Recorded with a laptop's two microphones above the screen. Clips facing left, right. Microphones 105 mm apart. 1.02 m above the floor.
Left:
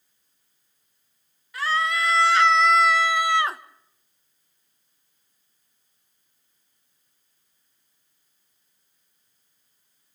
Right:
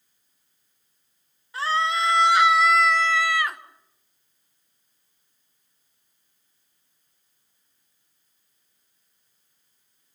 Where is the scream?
30° right (ahead or behind), 1.4 m; by 3.6 s 35° left (ahead or behind), 0.8 m.